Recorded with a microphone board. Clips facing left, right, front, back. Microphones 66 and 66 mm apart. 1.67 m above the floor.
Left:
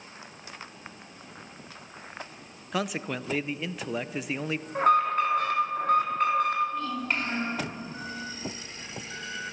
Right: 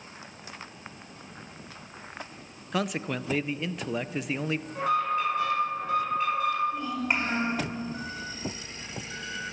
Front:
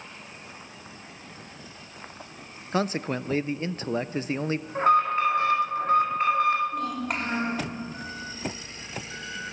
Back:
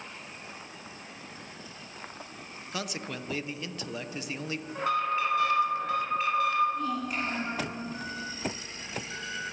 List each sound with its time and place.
2.7 s a man speaking: straight ahead, 0.7 m
4.8 s an alarm: 50° left, 5 m
6.7 s a child speaking: 20° right, 5 m